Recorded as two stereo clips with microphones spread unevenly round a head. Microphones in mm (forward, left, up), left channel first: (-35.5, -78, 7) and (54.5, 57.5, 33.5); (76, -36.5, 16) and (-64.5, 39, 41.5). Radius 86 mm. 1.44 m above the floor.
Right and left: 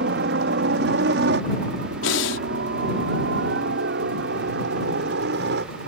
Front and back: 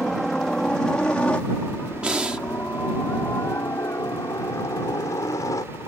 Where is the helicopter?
60° left; by 5.9 s 40° left.